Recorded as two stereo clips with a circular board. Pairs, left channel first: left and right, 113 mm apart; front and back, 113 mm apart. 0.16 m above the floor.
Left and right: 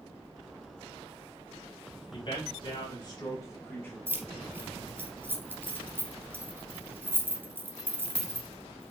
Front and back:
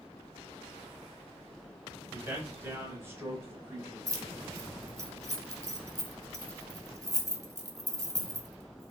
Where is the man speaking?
110° left, 2.5 m; by 4.0 s 145° left, 1.5 m.